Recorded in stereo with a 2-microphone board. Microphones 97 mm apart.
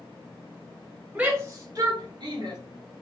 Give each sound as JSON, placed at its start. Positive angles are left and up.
{"t": 1.1, "sound": "a shout", "side_deg": -10, "distance_m": 0.9}